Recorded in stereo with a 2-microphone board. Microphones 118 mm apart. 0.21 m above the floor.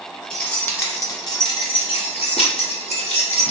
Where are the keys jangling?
10° left (ahead or behind), 1.0 m; by 3.5 s 70° left (ahead or behind), 1.8 m.